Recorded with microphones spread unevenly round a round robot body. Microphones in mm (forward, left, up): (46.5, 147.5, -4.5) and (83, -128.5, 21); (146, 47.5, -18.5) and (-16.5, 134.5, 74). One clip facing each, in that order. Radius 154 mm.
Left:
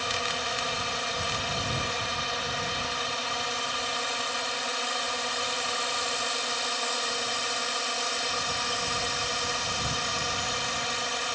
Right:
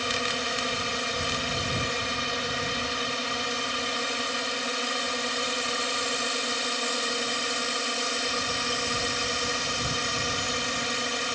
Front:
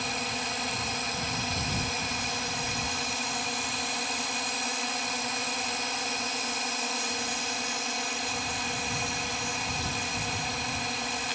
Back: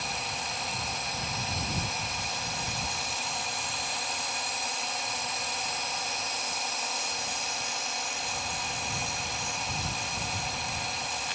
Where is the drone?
45° right.